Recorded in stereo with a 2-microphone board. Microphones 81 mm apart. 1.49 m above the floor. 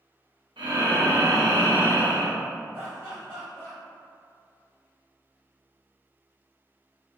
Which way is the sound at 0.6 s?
75° right (ahead or behind).